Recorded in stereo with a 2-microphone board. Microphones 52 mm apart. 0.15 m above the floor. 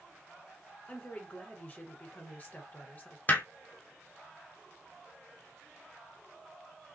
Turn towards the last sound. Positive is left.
turn(degrees=35)  # may be behind; listen again after turning